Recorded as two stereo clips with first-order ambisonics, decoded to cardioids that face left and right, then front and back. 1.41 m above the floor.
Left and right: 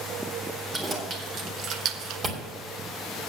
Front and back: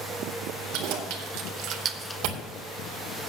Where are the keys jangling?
160° right, 2 m; by 2.2 s 60° right, 0.5 m.